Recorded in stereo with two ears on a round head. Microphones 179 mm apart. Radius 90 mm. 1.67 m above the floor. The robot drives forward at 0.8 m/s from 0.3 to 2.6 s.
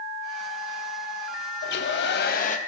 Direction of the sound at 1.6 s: 50° left (ahead or behind).